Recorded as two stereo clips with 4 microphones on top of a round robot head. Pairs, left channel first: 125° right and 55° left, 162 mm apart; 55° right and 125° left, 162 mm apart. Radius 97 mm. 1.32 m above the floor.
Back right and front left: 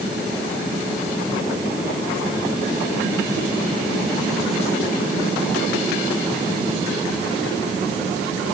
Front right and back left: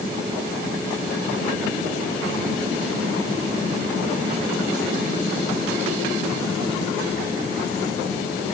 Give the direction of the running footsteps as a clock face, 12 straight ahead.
I don't hear running footsteps.